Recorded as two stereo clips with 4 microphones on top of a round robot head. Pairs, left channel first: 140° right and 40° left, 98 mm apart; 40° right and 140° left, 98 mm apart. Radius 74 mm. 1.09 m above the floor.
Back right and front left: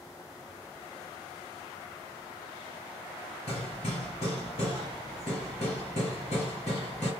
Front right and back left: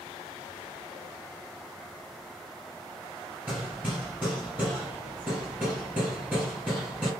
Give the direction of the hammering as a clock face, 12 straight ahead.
5 o'clock.